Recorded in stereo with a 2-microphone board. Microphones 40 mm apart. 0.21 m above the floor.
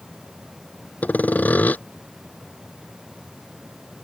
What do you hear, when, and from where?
1.0 s sawing: 45° left (ahead or behind)